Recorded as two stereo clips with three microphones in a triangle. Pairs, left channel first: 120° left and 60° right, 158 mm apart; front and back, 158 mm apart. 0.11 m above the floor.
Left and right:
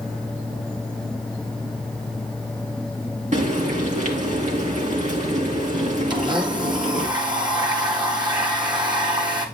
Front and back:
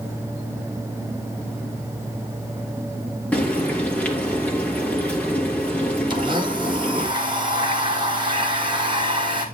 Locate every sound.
3.3 s frying: 80° right, 2.5 m
6.1 s a blender: 120° right, 2 m